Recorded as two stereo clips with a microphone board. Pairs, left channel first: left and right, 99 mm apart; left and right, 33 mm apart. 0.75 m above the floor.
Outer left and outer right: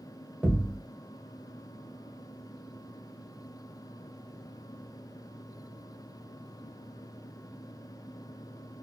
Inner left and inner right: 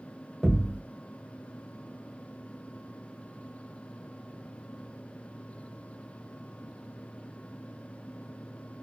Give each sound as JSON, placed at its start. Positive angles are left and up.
{"t": 0.4, "sound": "a thud", "side_deg": -15, "distance_m": 1.3}